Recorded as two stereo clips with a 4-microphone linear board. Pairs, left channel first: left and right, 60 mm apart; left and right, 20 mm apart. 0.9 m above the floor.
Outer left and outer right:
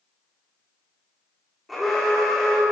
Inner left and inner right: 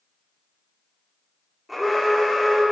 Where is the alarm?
Centre (ahead or behind), 1.4 m.